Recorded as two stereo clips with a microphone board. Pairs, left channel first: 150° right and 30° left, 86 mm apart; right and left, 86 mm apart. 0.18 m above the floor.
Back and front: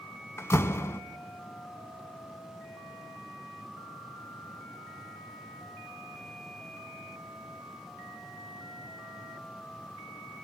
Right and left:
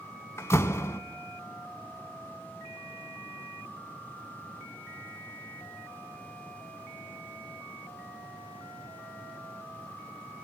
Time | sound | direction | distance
0.4 | a door slam | 120° right | 0.9 m